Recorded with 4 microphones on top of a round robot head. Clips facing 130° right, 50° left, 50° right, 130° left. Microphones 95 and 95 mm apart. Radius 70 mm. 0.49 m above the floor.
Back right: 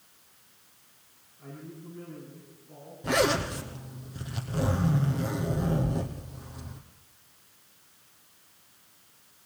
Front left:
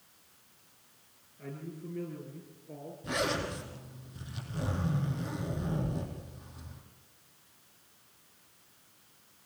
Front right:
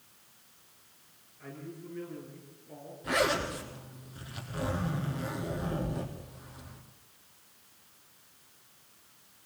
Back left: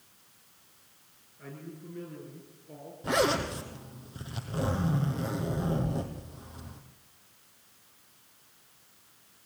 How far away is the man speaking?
About 8.5 m.